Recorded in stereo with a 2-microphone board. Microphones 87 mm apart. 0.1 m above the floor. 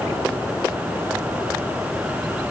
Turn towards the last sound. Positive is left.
No sound to turn to.